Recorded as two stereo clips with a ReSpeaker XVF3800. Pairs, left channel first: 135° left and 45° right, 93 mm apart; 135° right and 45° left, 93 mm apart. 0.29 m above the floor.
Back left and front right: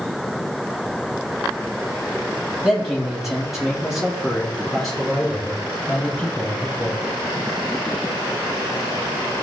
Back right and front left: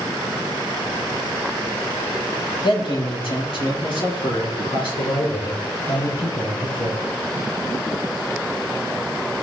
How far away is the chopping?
No chopping in this recording.